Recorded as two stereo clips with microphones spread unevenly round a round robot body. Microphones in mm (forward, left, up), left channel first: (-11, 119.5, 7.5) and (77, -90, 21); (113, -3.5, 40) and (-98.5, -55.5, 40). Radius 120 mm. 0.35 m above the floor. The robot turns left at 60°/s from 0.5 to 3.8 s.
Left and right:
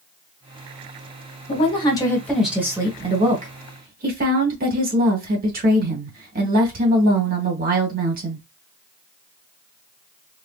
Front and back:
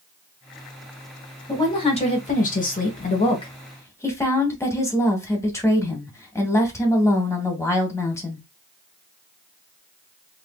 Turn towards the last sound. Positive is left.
turn(degrees=-55)